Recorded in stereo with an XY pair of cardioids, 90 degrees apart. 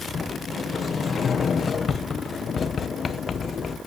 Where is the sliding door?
50° left, 1.0 m.